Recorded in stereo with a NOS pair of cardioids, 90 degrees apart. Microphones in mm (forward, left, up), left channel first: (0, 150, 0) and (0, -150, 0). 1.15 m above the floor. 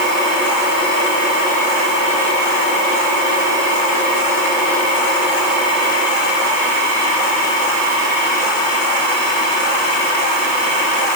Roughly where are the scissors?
No scissors in this recording.